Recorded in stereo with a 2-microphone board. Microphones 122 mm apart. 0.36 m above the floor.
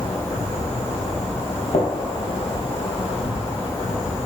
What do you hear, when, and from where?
0.0 s an insect: 55° left (ahead or behind), 2.0 m
1.7 s a gunshot: 65° left (ahead or behind), 2.5 m